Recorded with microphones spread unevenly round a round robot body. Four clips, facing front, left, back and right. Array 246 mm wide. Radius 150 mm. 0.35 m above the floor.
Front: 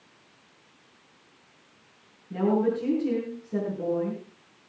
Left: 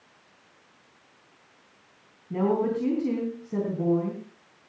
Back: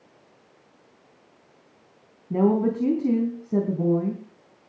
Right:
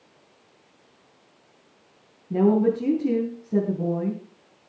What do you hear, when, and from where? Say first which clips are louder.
2.3 s a woman speaking: right 5 dB, back 3 dB; 155° right, 3.5 m